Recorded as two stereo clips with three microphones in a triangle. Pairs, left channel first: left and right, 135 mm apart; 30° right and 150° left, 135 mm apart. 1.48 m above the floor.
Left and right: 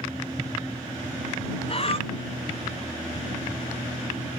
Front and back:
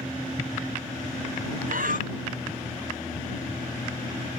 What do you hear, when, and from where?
1.7 s breathing: 135° left